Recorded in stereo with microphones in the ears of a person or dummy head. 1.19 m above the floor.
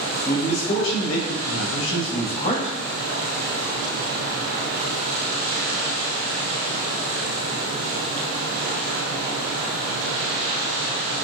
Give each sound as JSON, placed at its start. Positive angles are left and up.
{"t": 0.2, "sound": "a man speaking", "side_deg": 60, "distance_m": 1.2}